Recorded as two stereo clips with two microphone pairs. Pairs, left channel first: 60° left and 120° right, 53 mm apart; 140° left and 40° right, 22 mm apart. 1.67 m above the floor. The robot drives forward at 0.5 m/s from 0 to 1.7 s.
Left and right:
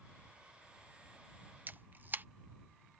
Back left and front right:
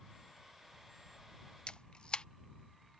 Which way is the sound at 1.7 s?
175° right.